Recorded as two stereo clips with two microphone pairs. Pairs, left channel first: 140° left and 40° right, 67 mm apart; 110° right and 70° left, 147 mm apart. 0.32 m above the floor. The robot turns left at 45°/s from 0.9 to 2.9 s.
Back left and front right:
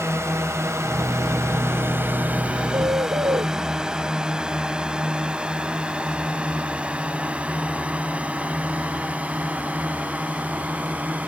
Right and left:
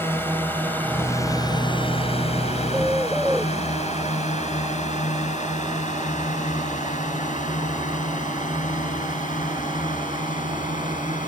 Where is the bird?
5° right; by 3.5 s 15° right.